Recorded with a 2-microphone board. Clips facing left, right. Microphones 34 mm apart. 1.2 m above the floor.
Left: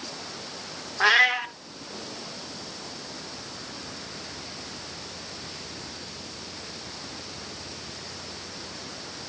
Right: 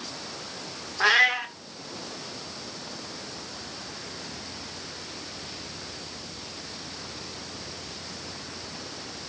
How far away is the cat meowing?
About 0.8 m.